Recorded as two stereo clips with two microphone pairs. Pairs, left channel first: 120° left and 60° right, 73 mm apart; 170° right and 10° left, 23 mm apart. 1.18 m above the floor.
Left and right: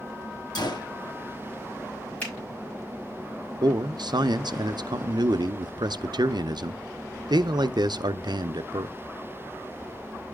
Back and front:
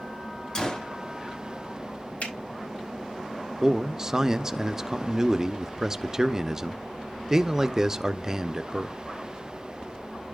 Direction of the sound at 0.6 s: 135° left.